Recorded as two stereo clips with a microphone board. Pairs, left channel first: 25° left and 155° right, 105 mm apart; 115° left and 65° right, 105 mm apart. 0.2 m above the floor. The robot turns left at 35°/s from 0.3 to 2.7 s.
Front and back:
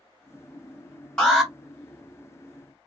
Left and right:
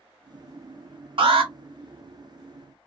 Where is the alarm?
60° right, 1.3 m; by 1.5 s 70° right, 1.3 m.